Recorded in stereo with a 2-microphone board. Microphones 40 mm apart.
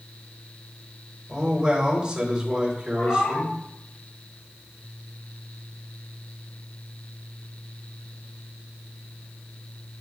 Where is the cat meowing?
65° left (ahead or behind), 3.5 m.